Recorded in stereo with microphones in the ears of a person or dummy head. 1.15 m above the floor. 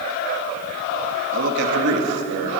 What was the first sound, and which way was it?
A man speaking, 70° right (ahead or behind).